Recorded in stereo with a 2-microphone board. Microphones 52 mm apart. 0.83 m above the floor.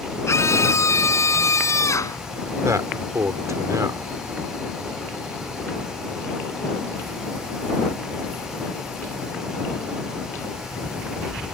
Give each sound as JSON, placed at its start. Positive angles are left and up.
{"t": 0.3, "sound": "a scream", "side_deg": 60}
{"t": 2.6, "sound": "a man speaking", "side_deg": -80}